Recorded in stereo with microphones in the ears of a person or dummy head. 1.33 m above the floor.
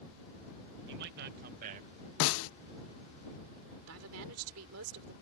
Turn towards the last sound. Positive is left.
turn(degrees=-85)